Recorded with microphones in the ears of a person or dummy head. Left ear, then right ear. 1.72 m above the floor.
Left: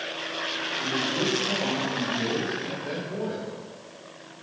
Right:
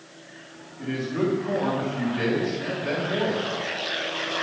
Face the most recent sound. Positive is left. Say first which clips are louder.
# right 2 dB
turn(degrees=-30)  # may be behind; listen again after turning